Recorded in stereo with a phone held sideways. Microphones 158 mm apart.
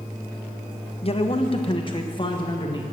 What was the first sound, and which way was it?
A man speaking, 40° left (ahead or behind).